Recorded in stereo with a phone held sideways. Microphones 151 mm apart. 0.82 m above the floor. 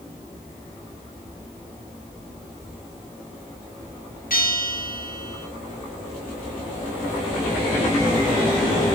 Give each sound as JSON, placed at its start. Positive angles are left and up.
{"t": 4.3, "sound": "a bell", "side_deg": 80, "distance_m": 5.5}